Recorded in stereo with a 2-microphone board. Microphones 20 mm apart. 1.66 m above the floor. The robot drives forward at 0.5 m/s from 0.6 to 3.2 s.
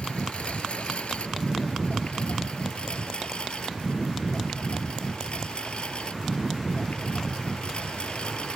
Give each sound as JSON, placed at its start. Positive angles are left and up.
{"t": 0.0, "sound": "a lawn mower", "side_deg": 60}